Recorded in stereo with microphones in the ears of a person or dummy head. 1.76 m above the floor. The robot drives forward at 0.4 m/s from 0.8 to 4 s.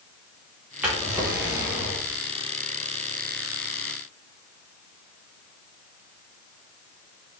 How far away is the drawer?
About 1.0 m.